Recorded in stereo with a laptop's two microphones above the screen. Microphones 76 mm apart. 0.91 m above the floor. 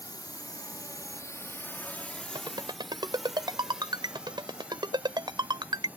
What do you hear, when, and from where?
0.0 s a drone: 60° left (ahead or behind); by 6.0 s 20° right (ahead or behind)
2.4 s a ringtone: 75° right (ahead or behind)